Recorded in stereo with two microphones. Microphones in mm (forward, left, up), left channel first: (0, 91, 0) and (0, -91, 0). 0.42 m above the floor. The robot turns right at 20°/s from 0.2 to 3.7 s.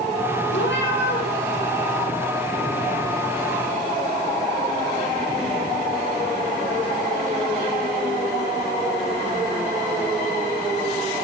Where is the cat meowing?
85° left, 3 m; by 1.3 s 80° left, 3 m.